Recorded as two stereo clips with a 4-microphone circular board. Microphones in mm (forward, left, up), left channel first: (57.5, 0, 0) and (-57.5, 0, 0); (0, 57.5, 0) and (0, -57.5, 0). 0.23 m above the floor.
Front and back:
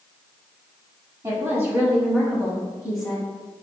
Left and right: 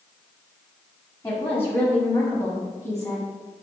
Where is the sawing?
I don't hear sawing.